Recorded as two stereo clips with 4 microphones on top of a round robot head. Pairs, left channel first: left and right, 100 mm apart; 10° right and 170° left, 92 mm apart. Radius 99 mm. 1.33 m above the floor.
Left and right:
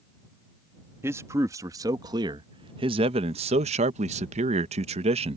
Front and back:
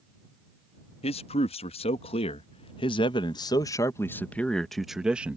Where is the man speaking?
20° right; by 5.4 s 110° right.